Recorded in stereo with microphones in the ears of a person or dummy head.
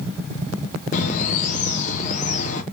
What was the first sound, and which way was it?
A bird, 40° left (ahead or behind).